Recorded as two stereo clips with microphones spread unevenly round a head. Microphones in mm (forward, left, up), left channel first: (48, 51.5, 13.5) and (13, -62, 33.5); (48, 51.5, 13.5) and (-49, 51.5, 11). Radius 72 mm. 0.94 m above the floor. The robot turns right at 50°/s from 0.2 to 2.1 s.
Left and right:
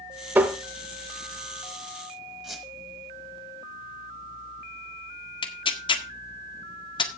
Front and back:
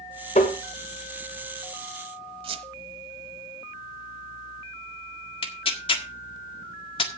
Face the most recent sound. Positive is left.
turn(degrees=25)